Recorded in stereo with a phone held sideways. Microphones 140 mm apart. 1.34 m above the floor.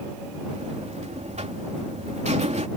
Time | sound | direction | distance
0.5 | a buzzer | 55° right (ahead or behind) | ?